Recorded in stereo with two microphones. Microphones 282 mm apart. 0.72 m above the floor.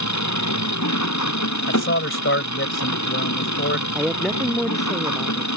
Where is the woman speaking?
Centre (ahead or behind).